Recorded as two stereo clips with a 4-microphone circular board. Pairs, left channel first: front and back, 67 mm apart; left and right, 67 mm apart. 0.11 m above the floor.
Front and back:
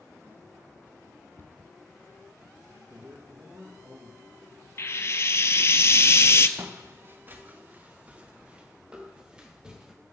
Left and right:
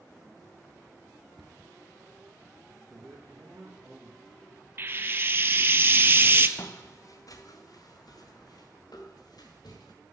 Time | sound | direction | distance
1.4 | a cupboard door | 5° right | 1.1 m
2.9 | a man speaking | 150° right | 2.5 m
4.8 | frying | 40° right | 0.5 m
6.6 | footsteps | 130° left | 1.1 m